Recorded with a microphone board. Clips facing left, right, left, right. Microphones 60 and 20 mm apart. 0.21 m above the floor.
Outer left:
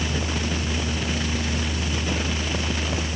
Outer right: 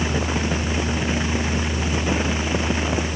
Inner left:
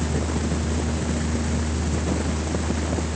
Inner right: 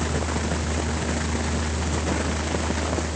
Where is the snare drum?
I don't hear a snare drum.